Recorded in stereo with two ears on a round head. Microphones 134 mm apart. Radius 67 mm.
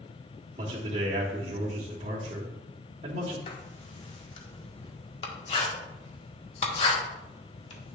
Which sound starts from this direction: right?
A man speaking, at 0.6 s.